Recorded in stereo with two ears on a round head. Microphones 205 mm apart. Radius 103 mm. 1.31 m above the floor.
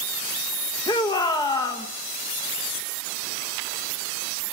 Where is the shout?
15° left (ahead or behind), 1.7 m.